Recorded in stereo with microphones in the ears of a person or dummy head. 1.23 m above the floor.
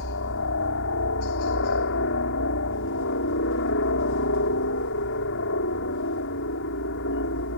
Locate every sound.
0.0 s a helicopter: 60° left (ahead or behind)